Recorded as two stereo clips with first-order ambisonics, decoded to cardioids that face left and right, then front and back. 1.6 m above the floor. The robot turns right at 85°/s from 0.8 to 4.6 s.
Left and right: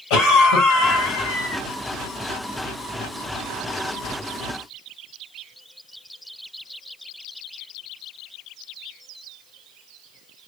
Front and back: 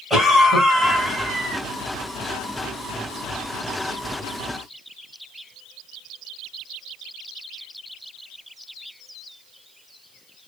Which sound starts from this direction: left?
A cough, at 0.1 s.